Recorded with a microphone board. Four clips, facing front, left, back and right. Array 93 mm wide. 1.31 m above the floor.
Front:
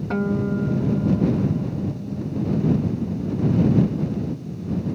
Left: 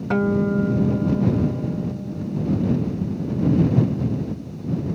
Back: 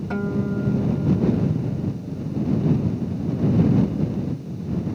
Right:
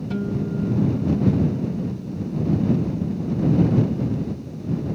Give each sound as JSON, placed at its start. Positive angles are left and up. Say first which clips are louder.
{"t": 0.1, "sound": "a guitar", "louder": "left 7 dB, front 2 dB", "azimuth_deg": 80}